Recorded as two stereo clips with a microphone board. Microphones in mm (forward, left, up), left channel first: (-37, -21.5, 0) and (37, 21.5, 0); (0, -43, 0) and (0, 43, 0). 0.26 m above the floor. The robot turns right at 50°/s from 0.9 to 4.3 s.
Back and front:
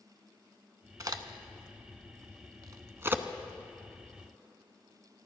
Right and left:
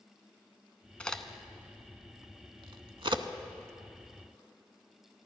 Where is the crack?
15° right, 0.7 m; by 3.2 s 100° left, 0.7 m.